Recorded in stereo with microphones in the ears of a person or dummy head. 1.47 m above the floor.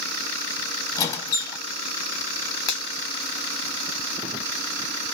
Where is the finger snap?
65° left (ahead or behind), 1.0 m.